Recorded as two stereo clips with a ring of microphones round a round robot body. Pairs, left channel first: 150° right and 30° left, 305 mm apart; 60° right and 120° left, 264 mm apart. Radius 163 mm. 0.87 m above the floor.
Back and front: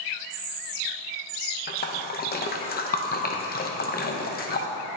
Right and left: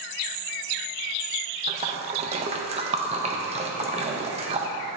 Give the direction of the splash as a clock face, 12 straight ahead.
6 o'clock.